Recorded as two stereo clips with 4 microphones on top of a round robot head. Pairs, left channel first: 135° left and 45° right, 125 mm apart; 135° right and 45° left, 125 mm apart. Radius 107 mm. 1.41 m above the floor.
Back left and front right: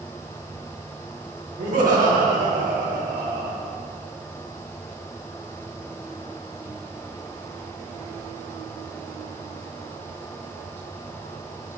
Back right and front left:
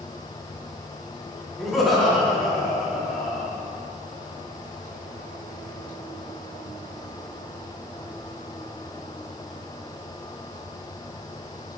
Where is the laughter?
45° right, 1.5 m.